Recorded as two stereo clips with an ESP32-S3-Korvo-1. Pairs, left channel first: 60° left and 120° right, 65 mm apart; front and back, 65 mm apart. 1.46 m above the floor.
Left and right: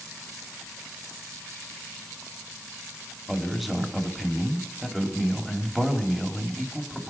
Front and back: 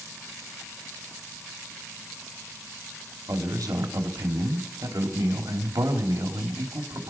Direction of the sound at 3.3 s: 150° left.